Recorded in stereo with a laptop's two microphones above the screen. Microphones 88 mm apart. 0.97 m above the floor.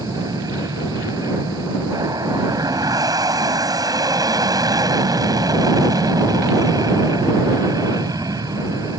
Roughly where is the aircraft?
Right.